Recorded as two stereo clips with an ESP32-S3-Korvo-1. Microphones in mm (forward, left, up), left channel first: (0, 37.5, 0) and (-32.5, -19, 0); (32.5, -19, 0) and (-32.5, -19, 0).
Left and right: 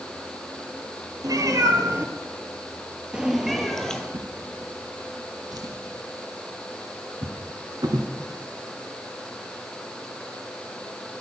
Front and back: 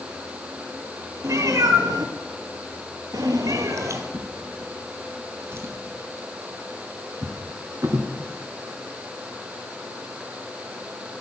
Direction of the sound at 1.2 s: 145° right.